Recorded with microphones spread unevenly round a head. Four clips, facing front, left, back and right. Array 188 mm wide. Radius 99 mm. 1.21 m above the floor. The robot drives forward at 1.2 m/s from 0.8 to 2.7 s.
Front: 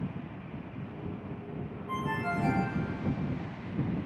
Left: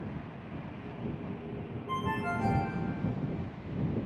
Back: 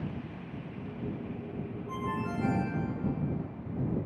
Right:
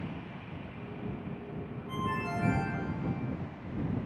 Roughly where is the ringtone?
Ahead left.